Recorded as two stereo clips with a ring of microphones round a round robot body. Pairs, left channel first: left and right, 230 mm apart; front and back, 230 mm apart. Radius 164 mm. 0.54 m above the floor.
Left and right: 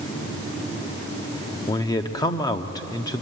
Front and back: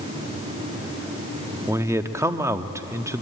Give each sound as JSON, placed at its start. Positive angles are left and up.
{"t": 1.7, "sound": "a man speaking", "azimuth_deg": 125, "distance_m": 0.8}